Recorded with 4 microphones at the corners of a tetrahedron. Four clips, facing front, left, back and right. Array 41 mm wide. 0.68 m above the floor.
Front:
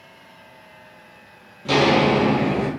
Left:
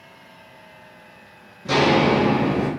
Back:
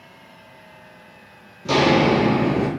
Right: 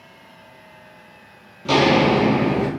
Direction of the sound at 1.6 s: 65° right.